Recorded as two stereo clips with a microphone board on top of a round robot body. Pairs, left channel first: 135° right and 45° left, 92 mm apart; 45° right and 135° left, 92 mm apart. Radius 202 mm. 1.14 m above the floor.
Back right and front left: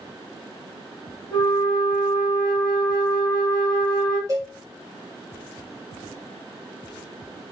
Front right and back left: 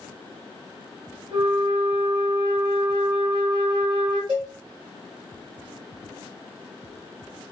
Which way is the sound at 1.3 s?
175° right.